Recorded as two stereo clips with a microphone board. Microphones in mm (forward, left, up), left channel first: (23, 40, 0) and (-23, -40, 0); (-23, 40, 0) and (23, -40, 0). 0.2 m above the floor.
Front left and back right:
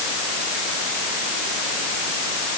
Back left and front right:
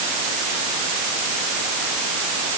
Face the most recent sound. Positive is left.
No sound to turn to.